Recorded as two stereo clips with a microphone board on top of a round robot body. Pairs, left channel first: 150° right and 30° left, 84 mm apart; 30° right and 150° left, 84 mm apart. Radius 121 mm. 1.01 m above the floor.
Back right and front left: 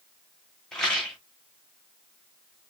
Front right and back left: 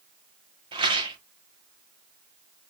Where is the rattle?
130° left, 0.9 m.